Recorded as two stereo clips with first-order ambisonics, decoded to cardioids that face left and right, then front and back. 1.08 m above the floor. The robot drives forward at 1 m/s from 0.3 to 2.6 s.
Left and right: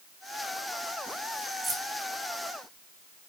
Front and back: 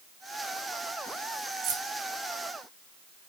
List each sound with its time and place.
1.6 s keys jangling: 170° right, 2.5 m